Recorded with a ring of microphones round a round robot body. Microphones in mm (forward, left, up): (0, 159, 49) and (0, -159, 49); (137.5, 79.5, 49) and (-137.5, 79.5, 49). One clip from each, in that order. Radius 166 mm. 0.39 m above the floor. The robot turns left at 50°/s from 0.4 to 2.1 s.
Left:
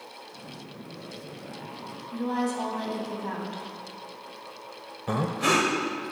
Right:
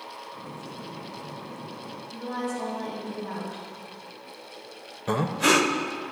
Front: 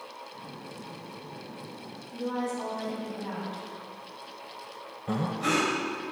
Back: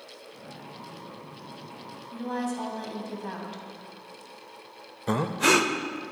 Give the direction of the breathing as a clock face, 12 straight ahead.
5 o'clock.